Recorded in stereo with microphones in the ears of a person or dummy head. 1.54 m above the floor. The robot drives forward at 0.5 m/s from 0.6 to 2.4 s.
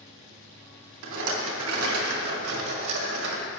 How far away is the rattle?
About 1.8 m.